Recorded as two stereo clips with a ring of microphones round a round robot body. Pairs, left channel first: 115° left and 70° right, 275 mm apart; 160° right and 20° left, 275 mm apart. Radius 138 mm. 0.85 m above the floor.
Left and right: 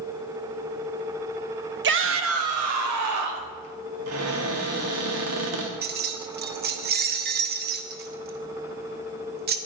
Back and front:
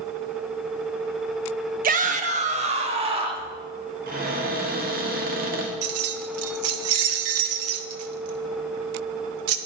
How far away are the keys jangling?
About 0.8 m.